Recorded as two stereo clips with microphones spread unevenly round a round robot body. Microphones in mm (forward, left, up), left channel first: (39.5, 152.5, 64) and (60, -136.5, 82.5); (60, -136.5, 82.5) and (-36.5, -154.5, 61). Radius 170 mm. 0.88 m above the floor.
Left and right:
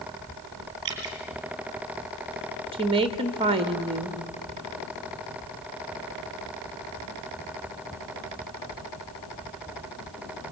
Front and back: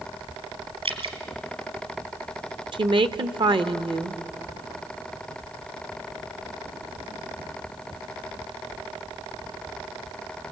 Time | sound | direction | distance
0.8 | dripping | 140° right | 4 m
2.7 | a woman speaking | 160° right | 1.2 m